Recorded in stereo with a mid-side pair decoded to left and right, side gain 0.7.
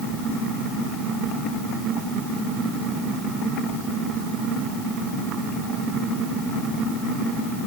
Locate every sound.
Only background noise.